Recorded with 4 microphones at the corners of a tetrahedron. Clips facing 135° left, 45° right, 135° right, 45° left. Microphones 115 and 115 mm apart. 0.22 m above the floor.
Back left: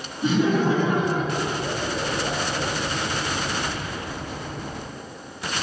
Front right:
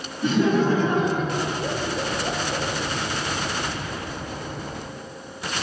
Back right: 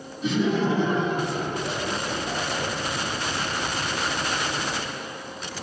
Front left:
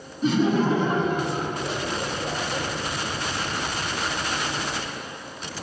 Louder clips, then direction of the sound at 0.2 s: Front right 1 dB, front left 2 dB; 70° left.